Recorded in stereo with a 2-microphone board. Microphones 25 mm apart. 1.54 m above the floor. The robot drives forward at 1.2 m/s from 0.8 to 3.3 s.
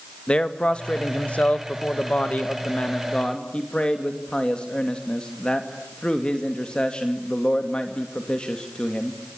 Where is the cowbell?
No cowbell in this recording.